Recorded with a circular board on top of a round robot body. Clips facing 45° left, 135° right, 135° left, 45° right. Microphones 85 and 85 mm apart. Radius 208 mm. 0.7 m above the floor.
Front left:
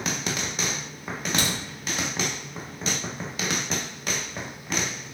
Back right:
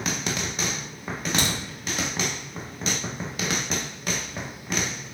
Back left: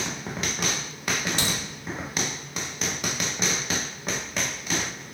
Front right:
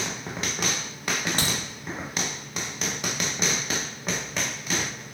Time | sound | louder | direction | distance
1.4 | a crack | back right 1 dB, even | 80° right | 1.0 m